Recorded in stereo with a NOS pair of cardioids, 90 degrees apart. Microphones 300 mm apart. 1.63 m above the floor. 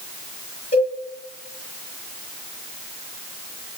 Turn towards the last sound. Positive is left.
turn(degrees=30)